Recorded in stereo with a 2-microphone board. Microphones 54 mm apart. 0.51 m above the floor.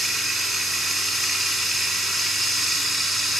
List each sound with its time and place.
0.0 s running water: centre (ahead or behind), 3 m